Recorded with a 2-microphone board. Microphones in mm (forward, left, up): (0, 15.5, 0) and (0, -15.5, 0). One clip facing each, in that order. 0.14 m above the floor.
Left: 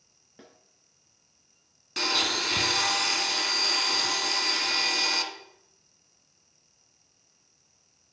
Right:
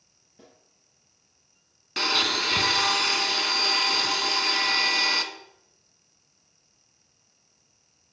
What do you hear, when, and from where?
0.4 s a snare drum: 45° left (ahead or behind), 1.3 m
2.0 s a blender: 20° right (ahead or behind), 0.7 m